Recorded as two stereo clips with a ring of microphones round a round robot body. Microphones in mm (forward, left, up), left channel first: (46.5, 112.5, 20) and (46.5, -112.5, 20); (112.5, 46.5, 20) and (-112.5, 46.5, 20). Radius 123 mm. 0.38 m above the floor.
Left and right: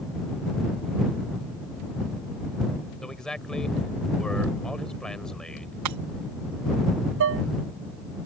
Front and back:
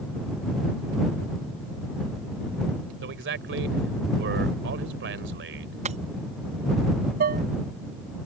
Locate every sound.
3.0 s a man speaking: 175° left
5.8 s breaking glass: 115° right
7.2 s dishes clattering: 125° right